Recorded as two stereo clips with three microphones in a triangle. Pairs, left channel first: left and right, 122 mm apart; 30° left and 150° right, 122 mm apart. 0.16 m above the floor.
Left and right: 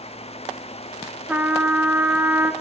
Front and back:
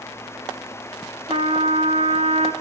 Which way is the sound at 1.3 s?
165° right.